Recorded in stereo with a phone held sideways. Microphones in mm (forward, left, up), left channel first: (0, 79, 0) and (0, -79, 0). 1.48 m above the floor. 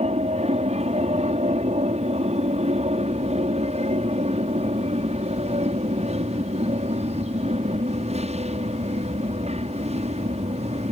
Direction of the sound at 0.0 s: 45° right (ahead or behind).